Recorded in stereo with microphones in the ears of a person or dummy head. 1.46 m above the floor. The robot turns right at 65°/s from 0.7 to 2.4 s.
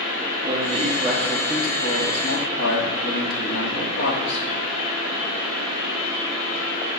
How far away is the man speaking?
About 3 m.